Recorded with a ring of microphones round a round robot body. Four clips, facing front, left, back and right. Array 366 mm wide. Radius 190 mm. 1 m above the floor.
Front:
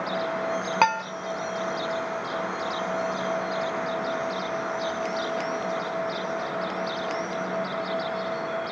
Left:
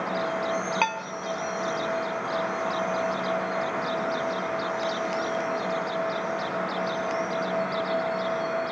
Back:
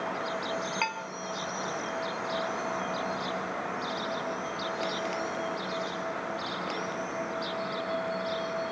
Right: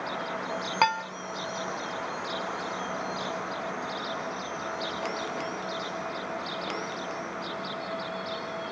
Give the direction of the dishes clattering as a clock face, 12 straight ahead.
1 o'clock.